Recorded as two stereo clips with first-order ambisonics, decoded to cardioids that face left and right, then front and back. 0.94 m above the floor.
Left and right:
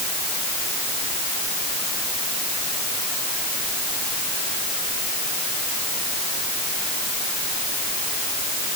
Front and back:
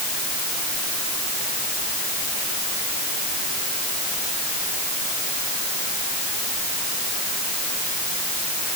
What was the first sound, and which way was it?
Only background noise.